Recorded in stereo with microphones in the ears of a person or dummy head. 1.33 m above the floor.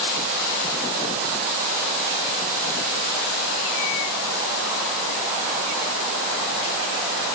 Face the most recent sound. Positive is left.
No sound to turn to.